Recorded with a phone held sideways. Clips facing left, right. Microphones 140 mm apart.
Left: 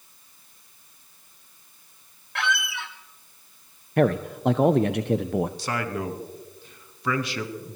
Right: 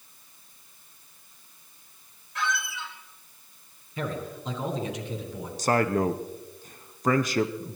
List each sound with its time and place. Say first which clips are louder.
2.4 s a squeak: left 3 dB; 70° left (ahead or behind), 1.0 m
4.0 s a man speaking: left 11 dB; 65° left (ahead or behind), 0.5 m
5.6 s a man speaking: right 6 dB; 45° right (ahead or behind), 0.7 m